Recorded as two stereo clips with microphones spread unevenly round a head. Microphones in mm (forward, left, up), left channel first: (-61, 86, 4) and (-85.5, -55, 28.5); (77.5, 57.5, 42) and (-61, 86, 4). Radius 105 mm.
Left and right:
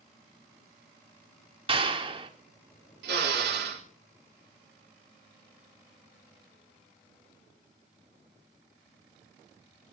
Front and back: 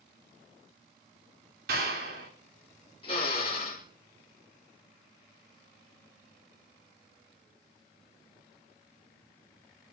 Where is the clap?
150° right, 4 m.